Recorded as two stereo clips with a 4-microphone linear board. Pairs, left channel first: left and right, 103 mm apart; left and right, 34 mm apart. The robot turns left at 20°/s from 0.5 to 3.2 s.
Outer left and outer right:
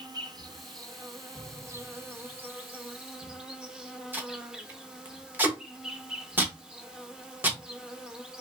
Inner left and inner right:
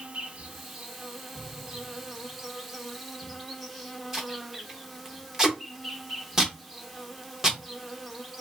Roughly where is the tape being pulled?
Centre.